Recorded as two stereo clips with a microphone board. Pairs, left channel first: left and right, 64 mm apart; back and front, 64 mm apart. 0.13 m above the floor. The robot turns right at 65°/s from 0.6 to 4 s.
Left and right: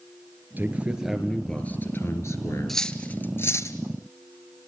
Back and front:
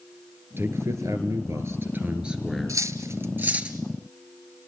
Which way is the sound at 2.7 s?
5° left.